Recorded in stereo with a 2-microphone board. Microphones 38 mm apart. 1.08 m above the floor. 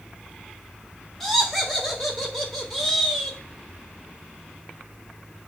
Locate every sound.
1.2 s laughter: 10° left (ahead or behind), 1.8 m